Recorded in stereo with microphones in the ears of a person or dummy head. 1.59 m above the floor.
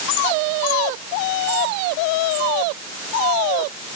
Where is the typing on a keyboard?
No typing on a keyboard in this recording.